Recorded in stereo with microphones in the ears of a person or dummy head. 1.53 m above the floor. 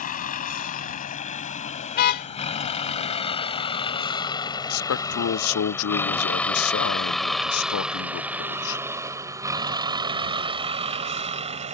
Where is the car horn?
55° left (ahead or behind).